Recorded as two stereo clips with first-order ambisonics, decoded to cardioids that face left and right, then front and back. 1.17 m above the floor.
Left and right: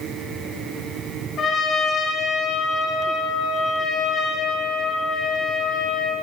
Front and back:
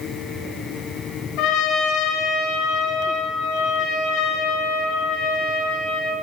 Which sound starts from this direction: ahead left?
A trumpet, at 1.4 s.